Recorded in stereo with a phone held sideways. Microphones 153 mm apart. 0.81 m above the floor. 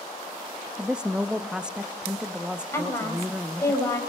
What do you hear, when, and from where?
0.8 s a woman speaking: 5° right (ahead or behind), 0.7 m
2.7 s a woman speaking: 20° left (ahead or behind), 5 m